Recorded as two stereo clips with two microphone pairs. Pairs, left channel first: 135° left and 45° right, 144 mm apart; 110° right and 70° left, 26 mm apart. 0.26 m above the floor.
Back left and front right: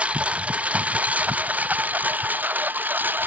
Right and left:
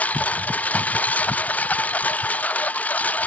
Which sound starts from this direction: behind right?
A lawn mower, at 0.0 s.